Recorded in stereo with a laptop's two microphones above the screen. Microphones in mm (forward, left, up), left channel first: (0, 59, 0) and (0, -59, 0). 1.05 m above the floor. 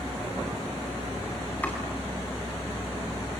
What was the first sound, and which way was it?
Chopping, 10° left (ahead or behind).